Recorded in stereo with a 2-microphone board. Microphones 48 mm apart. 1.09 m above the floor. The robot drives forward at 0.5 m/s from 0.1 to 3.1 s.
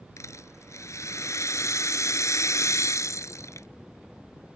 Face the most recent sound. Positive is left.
turn(degrees=85)